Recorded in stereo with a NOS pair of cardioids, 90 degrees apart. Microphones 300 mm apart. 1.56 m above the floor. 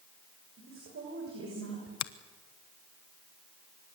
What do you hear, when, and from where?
0.6 s a woman speaking: 45° right, 6.5 m
2.0 s a finger snap: 65° left, 1.0 m